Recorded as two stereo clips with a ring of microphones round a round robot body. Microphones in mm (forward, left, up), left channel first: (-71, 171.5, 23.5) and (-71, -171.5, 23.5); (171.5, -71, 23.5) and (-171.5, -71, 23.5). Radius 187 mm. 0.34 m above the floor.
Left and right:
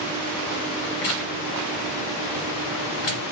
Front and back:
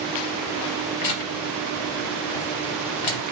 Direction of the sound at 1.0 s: 35° left.